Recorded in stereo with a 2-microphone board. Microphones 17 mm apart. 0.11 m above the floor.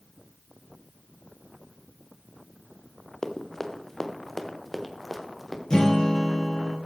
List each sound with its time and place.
3.2 s running footsteps: 40° left (ahead or behind), 1.8 m; by 5.6 s centre (ahead or behind), 3 m
5.7 s a guitar: 50° left (ahead or behind), 3 m